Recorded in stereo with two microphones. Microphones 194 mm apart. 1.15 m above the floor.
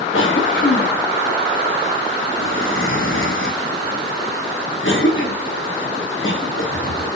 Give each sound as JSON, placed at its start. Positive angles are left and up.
{"t": 0.1, "sound": "a cough", "side_deg": 75, "distance_m": 0.9}